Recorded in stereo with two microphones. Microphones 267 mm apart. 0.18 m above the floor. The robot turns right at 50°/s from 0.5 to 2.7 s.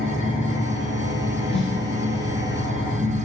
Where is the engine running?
110° right, 1.5 m; by 3.2 s straight ahead, 1.5 m.